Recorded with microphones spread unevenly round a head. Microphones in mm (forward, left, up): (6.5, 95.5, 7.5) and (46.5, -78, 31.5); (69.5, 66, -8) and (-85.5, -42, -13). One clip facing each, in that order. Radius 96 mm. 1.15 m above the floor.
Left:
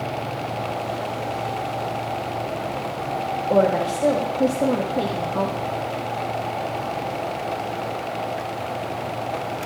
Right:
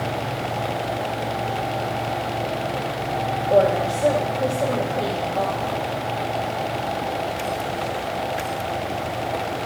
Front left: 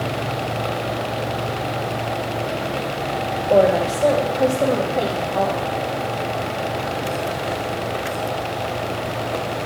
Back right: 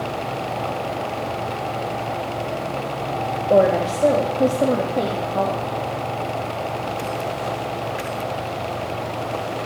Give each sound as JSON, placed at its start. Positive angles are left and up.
{"t": 3.5, "sound": "a woman speaking", "azimuth_deg": 145, "distance_m": 1.4}